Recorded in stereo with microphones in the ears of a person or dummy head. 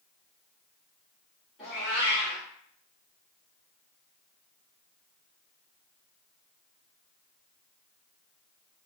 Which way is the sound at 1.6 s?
5° right (ahead or behind).